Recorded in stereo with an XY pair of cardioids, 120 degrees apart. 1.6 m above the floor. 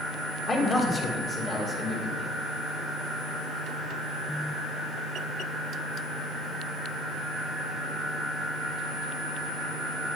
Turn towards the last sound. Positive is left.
turn(degrees=35)